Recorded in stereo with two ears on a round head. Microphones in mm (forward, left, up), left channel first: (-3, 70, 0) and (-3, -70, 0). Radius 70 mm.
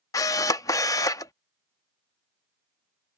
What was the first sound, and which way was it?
A camera shutter, 20° left (ahead or behind).